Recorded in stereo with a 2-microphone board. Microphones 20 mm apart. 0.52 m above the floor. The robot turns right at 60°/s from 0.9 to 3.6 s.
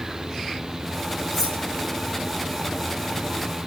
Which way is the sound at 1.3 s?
Centre (ahead or behind).